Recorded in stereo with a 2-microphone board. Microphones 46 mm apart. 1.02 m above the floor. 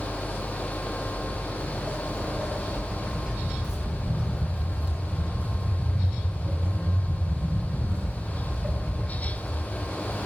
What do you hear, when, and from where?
1.0 s footsteps: 5° right (ahead or behind), 4 m; by 9.1 s 60° right (ahead or behind), 2.5 m